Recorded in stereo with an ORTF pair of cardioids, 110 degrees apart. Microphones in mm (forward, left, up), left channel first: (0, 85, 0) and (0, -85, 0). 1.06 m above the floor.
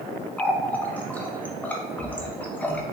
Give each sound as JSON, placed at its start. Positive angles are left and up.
{"t": 0.4, "sound": "a running tap", "azimuth_deg": 10, "distance_m": 0.5}